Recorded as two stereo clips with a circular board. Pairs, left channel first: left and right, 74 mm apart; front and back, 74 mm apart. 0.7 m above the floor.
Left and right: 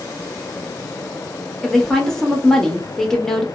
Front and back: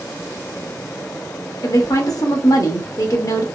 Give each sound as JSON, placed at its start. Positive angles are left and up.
{"t": 1.6, "sound": "a woman speaking", "azimuth_deg": 10, "distance_m": 0.8}